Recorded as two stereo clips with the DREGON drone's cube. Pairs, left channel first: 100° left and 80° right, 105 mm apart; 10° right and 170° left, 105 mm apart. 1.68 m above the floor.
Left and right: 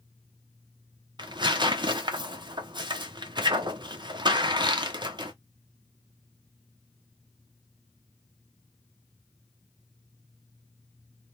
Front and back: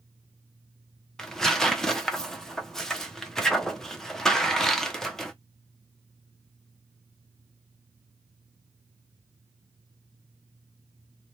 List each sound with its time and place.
1.2 s tearing paper: 95° right, 0.8 m